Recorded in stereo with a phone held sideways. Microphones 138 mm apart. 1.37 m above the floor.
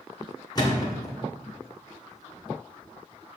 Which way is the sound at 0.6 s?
30° left (ahead or behind).